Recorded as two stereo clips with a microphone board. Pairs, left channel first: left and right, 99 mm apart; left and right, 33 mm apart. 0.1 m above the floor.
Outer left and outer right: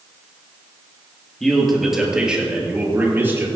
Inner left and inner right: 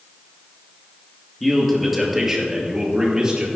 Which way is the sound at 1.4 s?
5° left (ahead or behind).